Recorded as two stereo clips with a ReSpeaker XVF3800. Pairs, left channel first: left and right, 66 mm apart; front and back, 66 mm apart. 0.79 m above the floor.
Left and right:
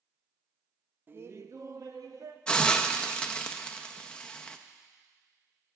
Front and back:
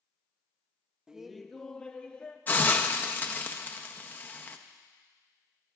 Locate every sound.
1.1 s laughter: 110° right, 0.5 m; by 2.4 s 70° right, 1.2 m
2.5 s a hiss: 30° left, 0.5 m